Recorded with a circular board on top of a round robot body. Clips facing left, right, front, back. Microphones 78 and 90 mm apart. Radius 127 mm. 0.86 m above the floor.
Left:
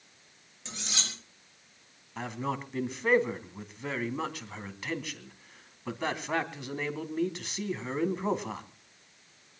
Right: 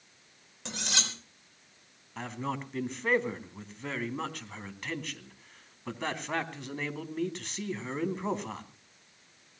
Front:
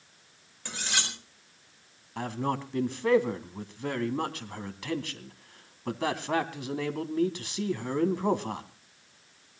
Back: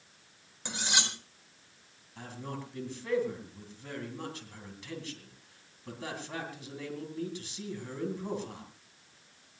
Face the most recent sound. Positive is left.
turn(degrees=5)